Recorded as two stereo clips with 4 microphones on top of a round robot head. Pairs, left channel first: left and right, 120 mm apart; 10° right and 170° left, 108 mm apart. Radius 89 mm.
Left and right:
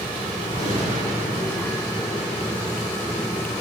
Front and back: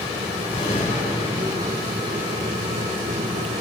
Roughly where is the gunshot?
Ahead right.